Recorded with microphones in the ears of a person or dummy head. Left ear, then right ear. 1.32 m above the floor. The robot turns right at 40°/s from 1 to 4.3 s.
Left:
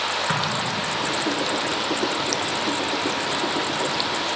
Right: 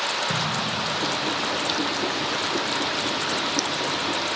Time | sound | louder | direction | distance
0.3 | an explosion | left 1 dB | 60° left (ahead or behind) | 1.1 m